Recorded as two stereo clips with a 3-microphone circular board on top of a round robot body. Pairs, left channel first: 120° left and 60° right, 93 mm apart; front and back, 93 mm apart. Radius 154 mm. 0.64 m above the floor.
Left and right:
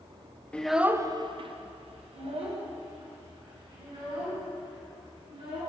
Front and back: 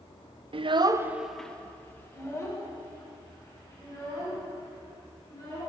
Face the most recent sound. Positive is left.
turn(degrees=-45)